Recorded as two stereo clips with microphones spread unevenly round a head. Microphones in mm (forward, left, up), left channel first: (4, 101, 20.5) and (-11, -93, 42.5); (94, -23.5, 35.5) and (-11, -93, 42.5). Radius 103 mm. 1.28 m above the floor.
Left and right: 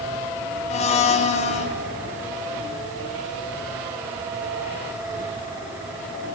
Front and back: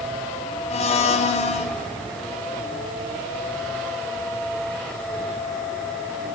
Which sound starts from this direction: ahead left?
A blender, at 0.7 s.